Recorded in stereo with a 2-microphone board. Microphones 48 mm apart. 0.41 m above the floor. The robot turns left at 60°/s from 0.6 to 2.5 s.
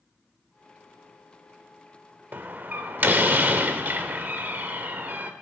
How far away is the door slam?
About 0.7 m.